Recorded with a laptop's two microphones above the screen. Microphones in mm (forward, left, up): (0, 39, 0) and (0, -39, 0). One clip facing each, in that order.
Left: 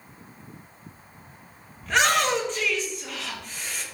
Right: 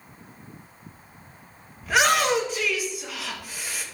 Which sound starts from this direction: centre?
A shout, at 1.8 s.